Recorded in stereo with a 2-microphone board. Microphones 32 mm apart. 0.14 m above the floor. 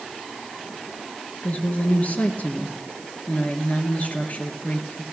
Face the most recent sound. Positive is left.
turn(degrees=55)  # may be behind; listen again after turning